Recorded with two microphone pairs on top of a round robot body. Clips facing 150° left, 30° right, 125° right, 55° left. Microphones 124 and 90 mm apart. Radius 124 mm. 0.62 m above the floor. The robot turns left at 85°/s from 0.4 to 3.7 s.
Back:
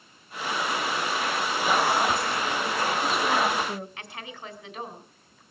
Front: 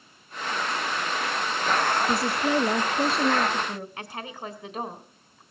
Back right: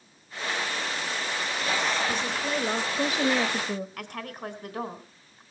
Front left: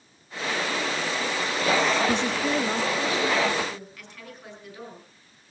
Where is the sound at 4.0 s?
90° right, 3.5 m.